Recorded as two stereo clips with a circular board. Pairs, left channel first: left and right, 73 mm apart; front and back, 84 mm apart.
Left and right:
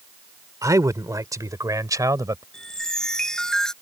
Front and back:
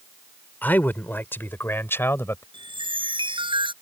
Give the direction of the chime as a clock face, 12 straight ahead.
6 o'clock.